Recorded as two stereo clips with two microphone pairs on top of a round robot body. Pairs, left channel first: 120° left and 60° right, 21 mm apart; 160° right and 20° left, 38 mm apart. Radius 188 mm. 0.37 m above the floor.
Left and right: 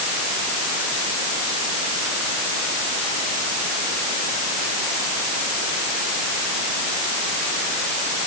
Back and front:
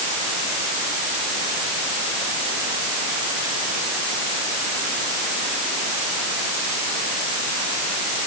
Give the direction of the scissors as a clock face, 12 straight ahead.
I don't hear scissors.